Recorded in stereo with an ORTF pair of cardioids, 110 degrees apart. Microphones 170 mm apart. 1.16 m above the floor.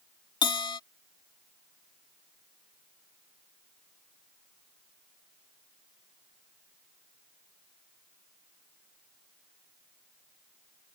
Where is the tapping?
I don't hear tapping.